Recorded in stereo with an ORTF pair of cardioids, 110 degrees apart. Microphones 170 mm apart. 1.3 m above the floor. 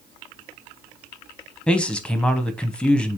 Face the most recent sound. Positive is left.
turn(degrees=5)